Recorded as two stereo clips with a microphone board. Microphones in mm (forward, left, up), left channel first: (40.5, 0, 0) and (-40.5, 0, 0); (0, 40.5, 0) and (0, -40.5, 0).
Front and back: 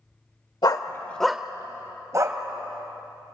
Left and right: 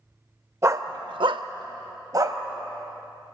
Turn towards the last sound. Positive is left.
turn(degrees=-135)